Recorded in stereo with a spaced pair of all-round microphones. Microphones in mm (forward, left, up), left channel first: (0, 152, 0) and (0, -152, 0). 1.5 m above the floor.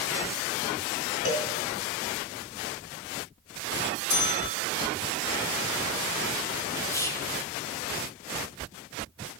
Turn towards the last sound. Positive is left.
turn(degrees=10)  # may be behind; listen again after turning